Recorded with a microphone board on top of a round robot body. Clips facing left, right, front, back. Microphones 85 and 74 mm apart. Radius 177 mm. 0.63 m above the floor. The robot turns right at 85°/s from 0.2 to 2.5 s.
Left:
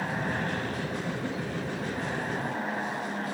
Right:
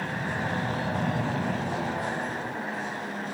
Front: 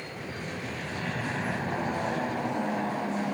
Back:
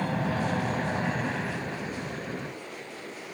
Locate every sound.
0.0 s an aircraft: 175° left; by 3.3 s 10° left